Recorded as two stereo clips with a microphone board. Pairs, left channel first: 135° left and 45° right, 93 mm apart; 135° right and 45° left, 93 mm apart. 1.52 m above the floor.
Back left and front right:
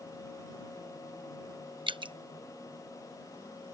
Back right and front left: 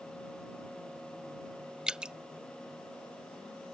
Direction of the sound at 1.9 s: 35° right.